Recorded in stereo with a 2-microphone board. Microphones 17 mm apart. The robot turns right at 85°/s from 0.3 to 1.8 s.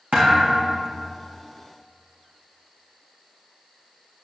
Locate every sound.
0.1 s a thud: 90° right, 3 m; by 0.9 s 35° right, 3 m